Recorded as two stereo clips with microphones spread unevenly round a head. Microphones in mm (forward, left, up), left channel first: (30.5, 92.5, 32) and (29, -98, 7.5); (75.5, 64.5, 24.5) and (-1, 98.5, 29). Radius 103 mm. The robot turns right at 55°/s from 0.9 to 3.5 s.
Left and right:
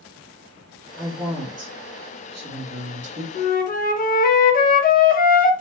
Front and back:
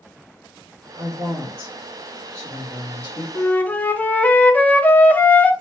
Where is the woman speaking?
165° right, 1.2 m; by 3.2 s 40° right, 1.2 m.